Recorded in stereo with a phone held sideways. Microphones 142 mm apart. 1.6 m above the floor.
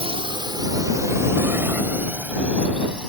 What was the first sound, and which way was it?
A drone, 45° right (ahead or behind).